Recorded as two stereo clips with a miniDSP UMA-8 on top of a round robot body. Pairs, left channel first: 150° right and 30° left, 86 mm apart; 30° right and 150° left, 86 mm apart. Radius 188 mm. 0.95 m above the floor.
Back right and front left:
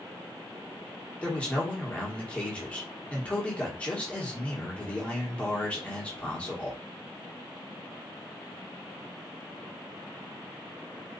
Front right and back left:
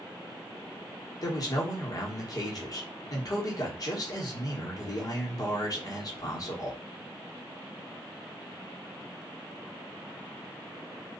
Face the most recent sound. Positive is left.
turn(degrees=-75)